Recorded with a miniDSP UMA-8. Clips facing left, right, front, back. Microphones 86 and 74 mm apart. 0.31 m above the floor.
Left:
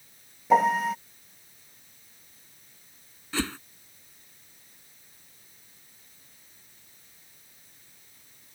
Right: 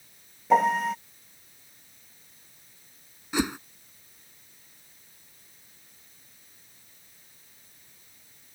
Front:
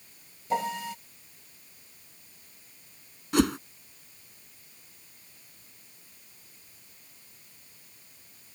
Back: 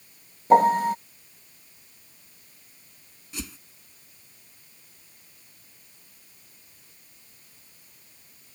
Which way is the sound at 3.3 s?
15° right.